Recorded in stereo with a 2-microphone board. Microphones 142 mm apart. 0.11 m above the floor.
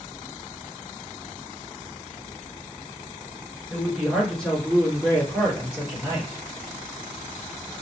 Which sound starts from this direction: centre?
A woman speaking, at 3.7 s.